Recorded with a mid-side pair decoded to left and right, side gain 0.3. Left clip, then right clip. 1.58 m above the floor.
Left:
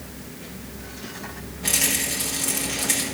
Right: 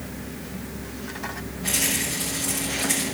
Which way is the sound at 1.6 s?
65° left.